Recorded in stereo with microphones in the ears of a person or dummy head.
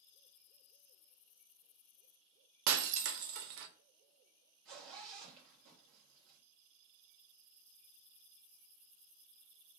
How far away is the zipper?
About 1.2 m.